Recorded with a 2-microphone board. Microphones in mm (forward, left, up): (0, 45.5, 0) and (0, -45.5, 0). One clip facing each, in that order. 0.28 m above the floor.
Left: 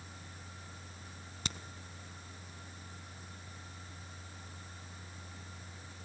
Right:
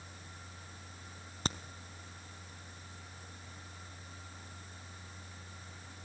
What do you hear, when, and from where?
1.4 s a crack: 40° right (ahead or behind), 1.1 m